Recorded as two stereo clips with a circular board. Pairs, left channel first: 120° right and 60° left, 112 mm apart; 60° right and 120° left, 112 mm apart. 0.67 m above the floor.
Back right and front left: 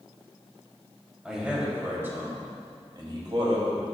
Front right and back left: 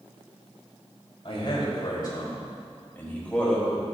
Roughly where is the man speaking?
Ahead right.